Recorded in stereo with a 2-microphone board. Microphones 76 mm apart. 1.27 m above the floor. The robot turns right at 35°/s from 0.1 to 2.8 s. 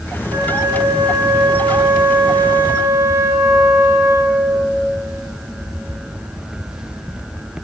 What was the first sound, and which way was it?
A flute, 130° right.